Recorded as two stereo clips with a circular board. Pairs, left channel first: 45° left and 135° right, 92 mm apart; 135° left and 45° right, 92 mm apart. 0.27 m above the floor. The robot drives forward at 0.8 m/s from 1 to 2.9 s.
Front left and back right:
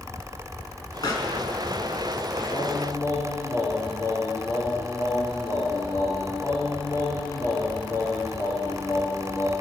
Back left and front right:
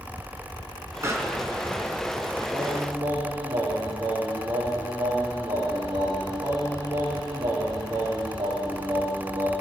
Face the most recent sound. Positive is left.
turn(degrees=-10)